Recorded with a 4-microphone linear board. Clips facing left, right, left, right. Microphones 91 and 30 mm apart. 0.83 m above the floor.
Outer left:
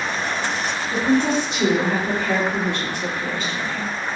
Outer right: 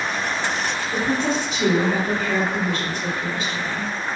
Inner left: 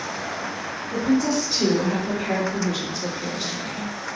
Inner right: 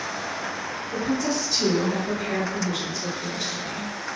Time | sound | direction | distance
0.9 | a woman speaking | 65° left (ahead or behind) | 1.9 m